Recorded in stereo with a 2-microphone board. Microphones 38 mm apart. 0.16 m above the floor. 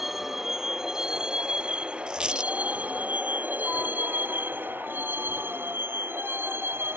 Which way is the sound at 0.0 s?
10° right (ahead or behind).